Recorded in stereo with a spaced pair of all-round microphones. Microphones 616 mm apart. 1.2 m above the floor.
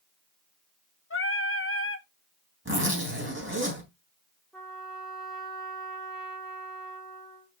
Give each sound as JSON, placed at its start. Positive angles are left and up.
{"t": 1.1, "sound": "singing", "side_deg": 20, "distance_m": 0.7}
{"t": 2.6, "sound": "a zipper", "side_deg": -20, "distance_m": 3.5}
{"t": 4.5, "sound": "a trumpet", "side_deg": 0, "distance_m": 1.9}